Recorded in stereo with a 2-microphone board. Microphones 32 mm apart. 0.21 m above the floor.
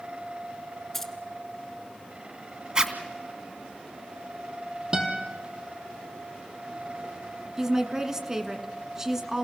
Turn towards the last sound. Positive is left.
turn(degrees=-20)  # may be behind; listen again after turning